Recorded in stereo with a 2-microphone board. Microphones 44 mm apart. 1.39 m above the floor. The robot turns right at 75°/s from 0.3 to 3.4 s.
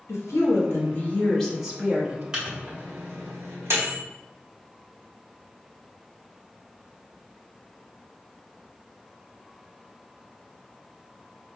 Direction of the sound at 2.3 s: 15° right (ahead or behind).